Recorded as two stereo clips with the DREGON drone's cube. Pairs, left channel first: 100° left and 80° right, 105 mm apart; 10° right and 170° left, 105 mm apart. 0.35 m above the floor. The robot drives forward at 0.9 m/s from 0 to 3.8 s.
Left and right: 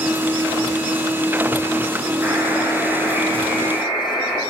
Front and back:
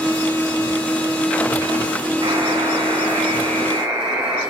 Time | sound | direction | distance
2.2 | a buzzer | 145° right | 1.3 m